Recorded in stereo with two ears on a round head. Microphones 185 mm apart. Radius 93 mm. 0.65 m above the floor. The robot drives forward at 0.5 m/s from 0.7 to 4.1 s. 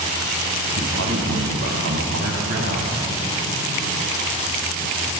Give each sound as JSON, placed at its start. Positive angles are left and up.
{"t": 0.8, "sound": "a man speaking", "side_deg": -80, "distance_m": 5.5}